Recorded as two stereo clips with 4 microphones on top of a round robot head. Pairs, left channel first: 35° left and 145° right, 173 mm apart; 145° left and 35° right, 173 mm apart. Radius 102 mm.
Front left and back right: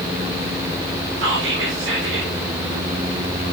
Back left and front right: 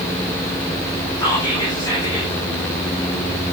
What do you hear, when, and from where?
1.2 s whispering: 145° right, 2.5 m